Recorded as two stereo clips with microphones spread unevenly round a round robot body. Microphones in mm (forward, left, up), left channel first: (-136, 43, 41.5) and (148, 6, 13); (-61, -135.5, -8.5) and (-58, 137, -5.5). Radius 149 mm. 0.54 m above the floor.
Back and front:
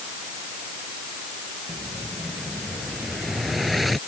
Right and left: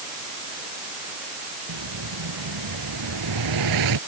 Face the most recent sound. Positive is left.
turn(degrees=85)